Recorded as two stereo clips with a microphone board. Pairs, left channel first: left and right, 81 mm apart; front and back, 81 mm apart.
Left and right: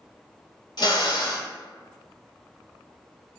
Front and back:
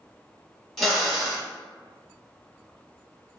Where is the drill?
90° left, 0.7 m.